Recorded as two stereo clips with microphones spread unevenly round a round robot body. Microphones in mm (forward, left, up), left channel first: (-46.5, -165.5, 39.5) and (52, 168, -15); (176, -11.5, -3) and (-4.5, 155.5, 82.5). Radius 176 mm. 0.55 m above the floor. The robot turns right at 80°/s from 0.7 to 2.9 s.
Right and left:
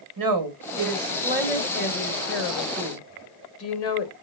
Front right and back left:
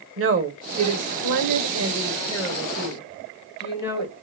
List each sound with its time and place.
0.2 s a woman speaking: 100° left, 2 m; by 4.1 s 85° right, 2 m